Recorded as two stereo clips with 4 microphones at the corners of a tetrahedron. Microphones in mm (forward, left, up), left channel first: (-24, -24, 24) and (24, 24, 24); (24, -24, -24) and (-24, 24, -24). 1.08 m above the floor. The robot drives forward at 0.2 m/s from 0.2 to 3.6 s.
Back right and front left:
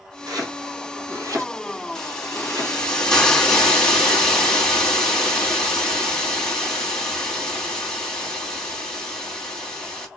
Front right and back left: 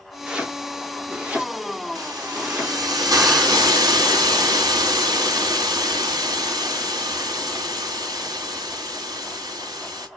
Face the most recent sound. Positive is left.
turn(degrees=145)